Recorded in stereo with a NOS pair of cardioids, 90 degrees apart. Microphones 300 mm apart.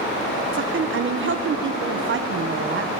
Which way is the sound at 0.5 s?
40° right.